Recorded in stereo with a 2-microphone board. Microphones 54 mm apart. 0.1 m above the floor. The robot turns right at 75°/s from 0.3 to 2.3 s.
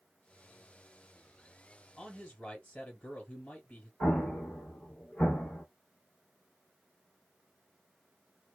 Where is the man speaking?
10° left (ahead or behind), 1.5 m; by 3.9 s 20° left (ahead or behind), 1.5 m.